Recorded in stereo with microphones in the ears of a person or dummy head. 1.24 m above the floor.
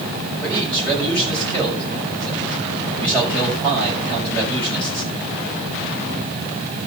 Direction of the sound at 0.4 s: 10° left (ahead or behind).